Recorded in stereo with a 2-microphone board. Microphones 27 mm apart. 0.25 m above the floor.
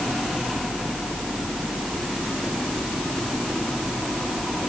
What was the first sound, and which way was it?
Only background noise.